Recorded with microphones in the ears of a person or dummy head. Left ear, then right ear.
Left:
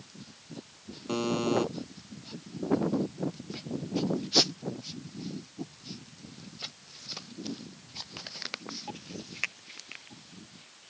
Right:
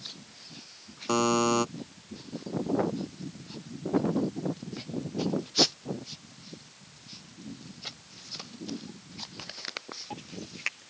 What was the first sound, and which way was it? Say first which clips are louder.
A buzzer: right 4 dB; 40° right (ahead or behind).